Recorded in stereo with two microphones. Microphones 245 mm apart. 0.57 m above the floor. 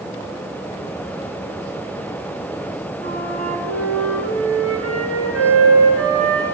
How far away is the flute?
About 3 m.